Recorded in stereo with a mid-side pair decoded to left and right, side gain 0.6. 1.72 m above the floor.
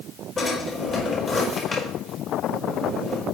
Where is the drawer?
30° left, 5.5 m.